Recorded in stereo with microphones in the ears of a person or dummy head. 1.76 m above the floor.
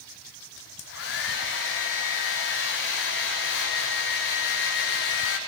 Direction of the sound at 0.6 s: 60° left (ahead or behind).